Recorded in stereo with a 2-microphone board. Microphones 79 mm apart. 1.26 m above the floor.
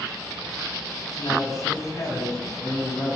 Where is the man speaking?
45° left (ahead or behind), 9 m.